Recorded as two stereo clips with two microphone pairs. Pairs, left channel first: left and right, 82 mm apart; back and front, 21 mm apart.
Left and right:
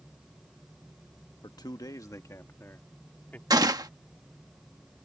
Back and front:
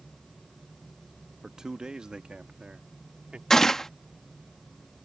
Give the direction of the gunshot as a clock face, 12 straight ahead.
4 o'clock.